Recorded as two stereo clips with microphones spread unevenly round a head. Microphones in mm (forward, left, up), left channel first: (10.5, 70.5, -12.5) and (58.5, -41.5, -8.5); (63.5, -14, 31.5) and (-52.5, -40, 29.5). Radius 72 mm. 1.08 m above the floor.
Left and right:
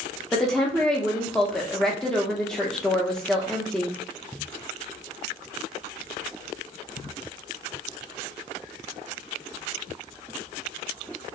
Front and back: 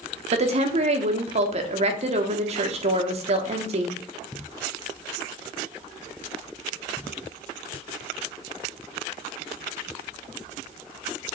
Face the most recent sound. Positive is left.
turn(degrees=-160)